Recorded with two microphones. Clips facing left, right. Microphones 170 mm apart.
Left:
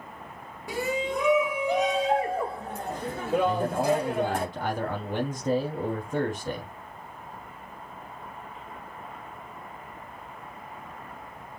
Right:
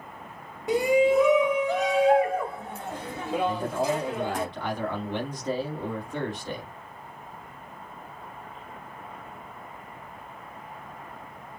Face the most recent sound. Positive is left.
turn(degrees=45)  # may be behind; listen again after turning